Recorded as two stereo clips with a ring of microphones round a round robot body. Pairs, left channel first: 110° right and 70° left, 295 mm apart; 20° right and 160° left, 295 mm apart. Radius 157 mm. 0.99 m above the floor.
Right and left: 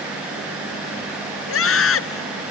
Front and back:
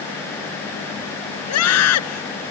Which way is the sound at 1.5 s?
65° right.